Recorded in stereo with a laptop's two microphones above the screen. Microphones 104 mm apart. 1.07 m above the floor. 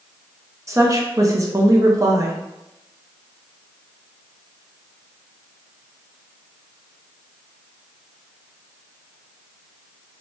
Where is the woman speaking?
30° right (ahead or behind), 0.6 m.